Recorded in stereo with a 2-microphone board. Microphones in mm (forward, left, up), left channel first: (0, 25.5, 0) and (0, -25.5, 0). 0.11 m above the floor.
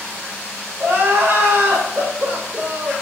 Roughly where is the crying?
Right.